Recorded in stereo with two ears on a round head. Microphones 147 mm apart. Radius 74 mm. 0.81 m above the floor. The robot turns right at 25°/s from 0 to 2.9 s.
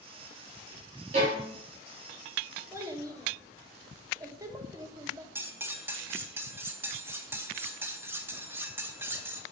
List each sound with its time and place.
1.1 s a violin: 40° right (ahead or behind), 3 m; by 1.4 s 45° right (ahead or behind), 3 m
2.7 s a child speaking: 15° right (ahead or behind), 1.2 m; by 5.2 s 20° right (ahead or behind), 1.2 m
5.3 s cutlery clinking: 15° right (ahead or behind), 0.7 m